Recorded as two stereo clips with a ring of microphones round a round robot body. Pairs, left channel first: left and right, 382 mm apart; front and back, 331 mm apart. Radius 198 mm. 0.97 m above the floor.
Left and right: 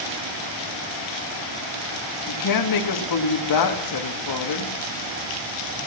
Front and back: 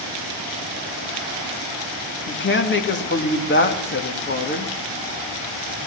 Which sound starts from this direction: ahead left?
A woman speaking, at 2.3 s.